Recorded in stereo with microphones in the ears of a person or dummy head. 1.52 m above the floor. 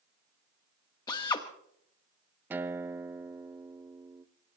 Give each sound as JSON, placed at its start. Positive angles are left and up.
{"t": 1.1, "sound": "a drill", "side_deg": 20, "distance_m": 1.1}
{"t": 2.5, "sound": "a guitar", "side_deg": -15, "distance_m": 0.7}